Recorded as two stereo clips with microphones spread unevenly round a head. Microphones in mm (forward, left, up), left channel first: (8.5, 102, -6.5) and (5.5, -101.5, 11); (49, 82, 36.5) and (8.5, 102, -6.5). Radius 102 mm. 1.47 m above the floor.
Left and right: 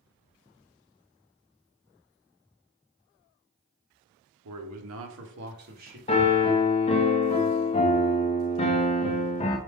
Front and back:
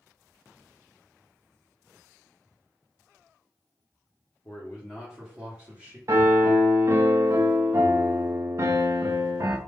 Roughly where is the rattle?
No rattle in this recording.